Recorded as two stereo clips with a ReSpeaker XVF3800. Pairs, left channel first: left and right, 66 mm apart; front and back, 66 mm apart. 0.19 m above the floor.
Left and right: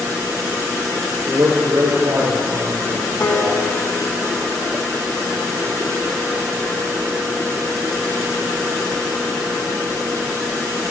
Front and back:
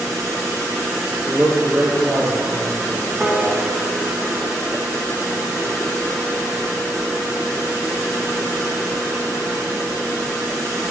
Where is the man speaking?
80° right, 5 m.